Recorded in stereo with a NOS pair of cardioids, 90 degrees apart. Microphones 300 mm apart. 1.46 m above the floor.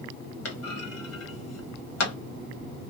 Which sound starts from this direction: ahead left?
A clunk, at 0.5 s.